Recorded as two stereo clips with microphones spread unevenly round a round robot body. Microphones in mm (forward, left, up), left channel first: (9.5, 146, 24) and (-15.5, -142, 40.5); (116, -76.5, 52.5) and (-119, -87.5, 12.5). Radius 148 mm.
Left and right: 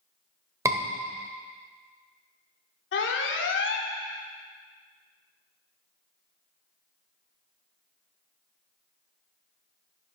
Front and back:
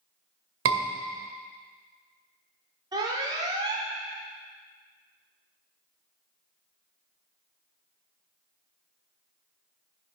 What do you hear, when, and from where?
0.7 s a scream: 175° right, 1.8 m
2.9 s an alarm: 120° left, 1.2 m